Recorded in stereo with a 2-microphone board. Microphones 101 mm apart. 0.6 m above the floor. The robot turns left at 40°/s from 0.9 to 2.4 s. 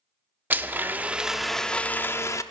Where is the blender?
160° right, 0.5 m; by 2.4 s 140° left, 0.5 m.